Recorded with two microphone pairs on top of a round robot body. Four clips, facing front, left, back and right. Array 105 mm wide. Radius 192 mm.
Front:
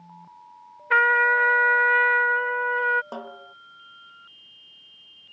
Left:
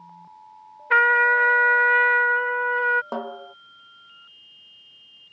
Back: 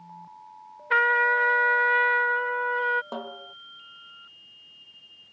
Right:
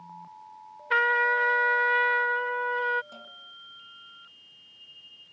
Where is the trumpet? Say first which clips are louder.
Left 6 dB, front 3 dB; 65° left.